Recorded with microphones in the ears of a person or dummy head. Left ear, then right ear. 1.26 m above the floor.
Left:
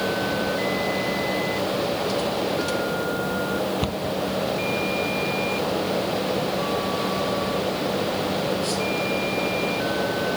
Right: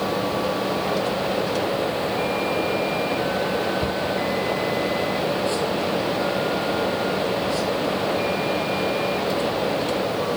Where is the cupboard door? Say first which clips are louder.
Right 3 dB; 50° left (ahead or behind).